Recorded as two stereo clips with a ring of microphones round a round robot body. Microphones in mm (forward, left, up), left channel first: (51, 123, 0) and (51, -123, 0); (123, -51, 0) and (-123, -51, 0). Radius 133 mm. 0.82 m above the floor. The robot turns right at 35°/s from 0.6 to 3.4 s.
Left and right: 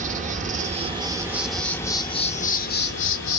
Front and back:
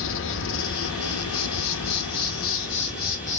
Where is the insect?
30° right, 0.8 m; by 3.4 s 65° left, 0.8 m.